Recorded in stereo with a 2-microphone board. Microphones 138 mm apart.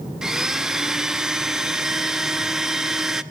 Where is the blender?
5° right (ahead or behind), 0.7 m.